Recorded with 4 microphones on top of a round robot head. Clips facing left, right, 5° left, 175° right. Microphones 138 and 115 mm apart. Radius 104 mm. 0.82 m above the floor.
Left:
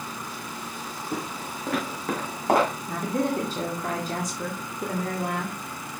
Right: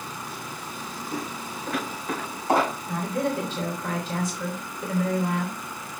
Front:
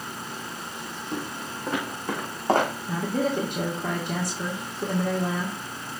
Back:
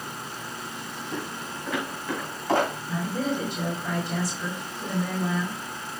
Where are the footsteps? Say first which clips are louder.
Left 1 dB, front 2 dB; 65° left, 3.5 m; by 2.7 s 55° left, 4 m.